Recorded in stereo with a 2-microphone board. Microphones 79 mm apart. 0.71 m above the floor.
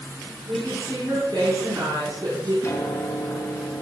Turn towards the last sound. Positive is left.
turn(degrees=40)  # may be behind; listen again after turning